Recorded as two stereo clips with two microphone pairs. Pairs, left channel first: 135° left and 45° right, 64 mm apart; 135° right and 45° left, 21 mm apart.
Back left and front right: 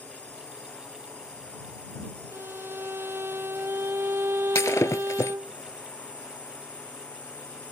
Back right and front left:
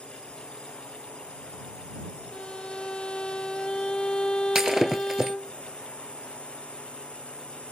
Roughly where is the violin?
Right.